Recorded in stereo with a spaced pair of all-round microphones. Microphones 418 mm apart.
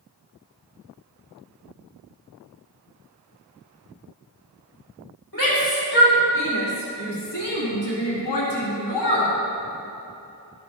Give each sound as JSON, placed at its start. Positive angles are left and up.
{"t": 5.3, "sound": "a shout", "side_deg": 50, "distance_m": 3.0}